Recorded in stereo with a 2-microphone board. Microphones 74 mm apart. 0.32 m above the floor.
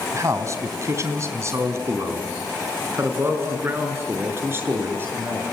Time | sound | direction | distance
0.1 | a man speaking | 45° right (ahead or behind) | 3 m